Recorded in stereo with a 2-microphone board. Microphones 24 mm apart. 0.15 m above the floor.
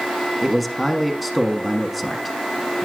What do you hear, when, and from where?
0.4 s a man speaking: centre (ahead or behind), 1.3 m